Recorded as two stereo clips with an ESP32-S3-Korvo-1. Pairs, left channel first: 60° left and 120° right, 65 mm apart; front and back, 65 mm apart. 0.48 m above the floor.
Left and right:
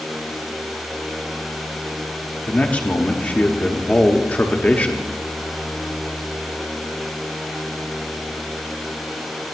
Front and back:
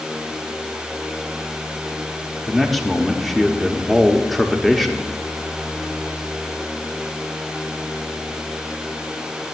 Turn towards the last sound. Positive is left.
turn(degrees=90)